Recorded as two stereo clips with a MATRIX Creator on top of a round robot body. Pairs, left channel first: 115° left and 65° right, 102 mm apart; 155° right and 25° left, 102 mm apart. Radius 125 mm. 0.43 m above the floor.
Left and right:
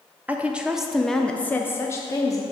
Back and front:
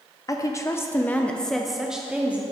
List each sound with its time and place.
0.3 s a woman speaking: 130° right, 1.0 m; by 2.4 s 90° left, 1.0 m